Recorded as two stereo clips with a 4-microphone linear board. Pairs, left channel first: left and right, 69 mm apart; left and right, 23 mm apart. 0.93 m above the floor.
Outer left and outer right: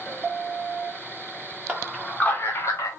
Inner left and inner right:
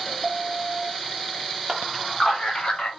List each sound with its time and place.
1.7 s a man speaking: 25° right (ahead or behind), 0.9 m; by 2.9 s 55° left (ahead or behind), 1.0 m